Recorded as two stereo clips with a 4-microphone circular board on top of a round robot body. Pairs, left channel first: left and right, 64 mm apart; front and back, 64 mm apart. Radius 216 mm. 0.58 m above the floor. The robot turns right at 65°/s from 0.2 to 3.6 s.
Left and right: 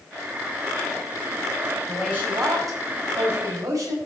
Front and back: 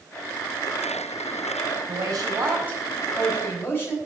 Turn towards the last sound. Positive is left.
turn(degrees=-60)